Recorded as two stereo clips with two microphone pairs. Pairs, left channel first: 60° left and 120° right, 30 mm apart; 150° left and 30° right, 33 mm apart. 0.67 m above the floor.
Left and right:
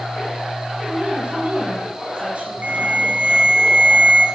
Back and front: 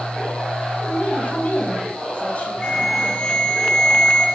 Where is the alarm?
145° right, 3.5 m.